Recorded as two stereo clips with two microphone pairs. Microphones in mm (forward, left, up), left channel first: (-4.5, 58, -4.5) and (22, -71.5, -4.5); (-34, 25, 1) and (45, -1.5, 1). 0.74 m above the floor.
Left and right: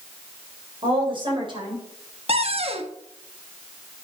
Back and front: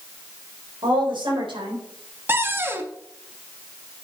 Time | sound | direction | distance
0.8 | a woman speaking | 30° right | 4 m
2.3 | a cupboard door | 75° right | 1.1 m